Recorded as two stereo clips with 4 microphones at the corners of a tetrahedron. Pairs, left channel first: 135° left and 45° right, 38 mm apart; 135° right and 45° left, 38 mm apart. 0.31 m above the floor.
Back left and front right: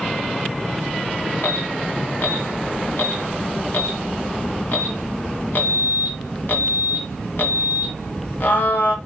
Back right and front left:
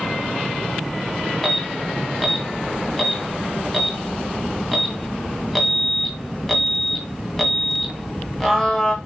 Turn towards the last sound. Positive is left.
turn(degrees=140)